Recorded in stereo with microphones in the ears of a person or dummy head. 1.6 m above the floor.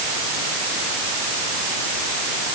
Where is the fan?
I don't hear a fan.